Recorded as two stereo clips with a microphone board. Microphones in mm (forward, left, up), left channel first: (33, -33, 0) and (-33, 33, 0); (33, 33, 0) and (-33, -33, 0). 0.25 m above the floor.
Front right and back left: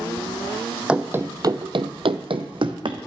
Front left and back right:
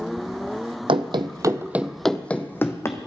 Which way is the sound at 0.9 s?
150° right.